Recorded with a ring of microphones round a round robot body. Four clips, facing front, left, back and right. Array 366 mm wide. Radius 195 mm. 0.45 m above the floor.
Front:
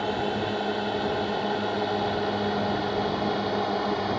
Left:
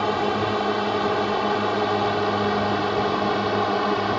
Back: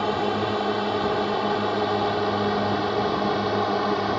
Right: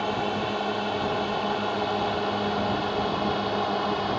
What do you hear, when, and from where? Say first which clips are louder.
0.0 s a drone: left 5 dB, back 3 dB; 120° left; by 4.2 s 125° left